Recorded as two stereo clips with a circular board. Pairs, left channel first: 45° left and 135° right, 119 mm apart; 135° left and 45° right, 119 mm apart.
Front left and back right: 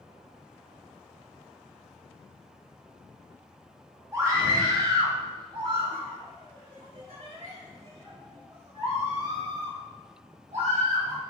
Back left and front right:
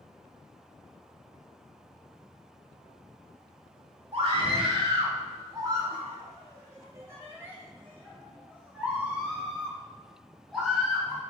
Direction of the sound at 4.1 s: 75° right.